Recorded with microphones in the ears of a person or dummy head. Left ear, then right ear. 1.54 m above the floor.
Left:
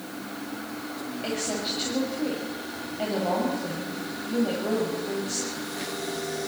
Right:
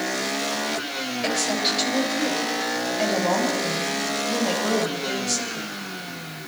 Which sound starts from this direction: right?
A woman speaking, at 1.2 s.